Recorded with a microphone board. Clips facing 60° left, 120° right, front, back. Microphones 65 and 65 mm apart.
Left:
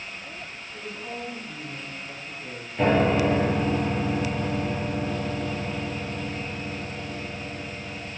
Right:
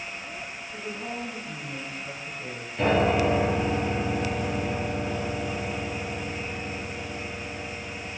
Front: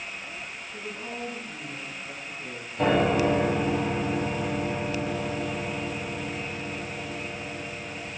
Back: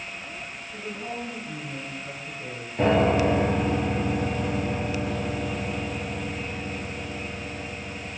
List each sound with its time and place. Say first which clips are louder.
0.7 s a woman speaking: right 1 dB, back 3 dB; 150° right, 3.5 m
2.8 s a piano: left 1 dB, back 2 dB; 140° left, 4 m